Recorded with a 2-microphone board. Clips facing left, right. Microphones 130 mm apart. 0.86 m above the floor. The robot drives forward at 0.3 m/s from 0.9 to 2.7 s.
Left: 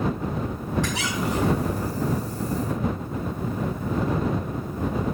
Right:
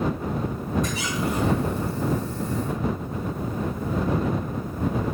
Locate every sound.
0.8 s a squeak: 90° left, 4 m; by 1.8 s 85° left, 4 m